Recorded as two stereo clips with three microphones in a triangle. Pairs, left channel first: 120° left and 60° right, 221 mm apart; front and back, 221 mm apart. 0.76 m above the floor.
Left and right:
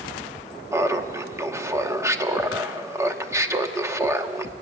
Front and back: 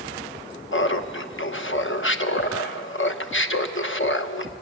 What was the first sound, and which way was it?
Laughter, 15° left.